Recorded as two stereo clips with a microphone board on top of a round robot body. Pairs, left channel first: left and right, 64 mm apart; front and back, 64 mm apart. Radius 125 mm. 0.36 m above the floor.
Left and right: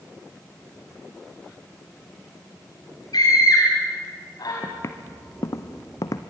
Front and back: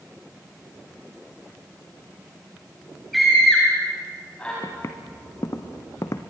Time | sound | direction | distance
3.1 | a scream | 90° left | 3.5 m
4.6 | footsteps | 45° left | 2.0 m